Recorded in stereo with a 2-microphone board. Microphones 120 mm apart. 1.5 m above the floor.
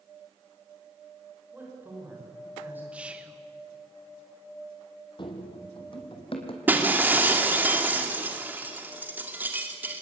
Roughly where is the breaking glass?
Centre.